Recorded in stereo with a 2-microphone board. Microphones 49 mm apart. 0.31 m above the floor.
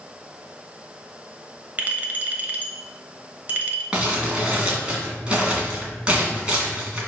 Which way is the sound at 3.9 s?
20° right (ahead or behind).